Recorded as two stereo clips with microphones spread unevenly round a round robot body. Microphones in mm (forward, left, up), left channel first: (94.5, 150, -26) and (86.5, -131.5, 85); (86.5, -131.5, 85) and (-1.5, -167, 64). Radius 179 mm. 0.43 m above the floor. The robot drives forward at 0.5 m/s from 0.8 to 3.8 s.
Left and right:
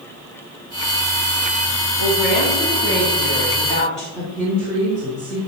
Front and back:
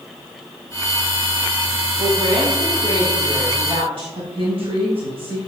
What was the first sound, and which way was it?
A woman speaking, 160° right.